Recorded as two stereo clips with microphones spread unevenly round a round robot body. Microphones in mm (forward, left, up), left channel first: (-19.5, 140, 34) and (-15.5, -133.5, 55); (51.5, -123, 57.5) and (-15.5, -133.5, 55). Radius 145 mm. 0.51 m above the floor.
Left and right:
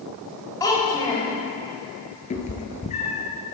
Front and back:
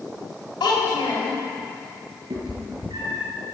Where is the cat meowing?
155° left, 0.8 m.